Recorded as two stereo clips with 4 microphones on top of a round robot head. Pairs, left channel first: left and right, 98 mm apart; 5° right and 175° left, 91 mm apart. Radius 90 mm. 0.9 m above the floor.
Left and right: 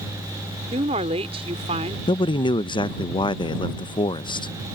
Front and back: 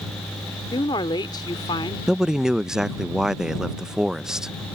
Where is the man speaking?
90° left.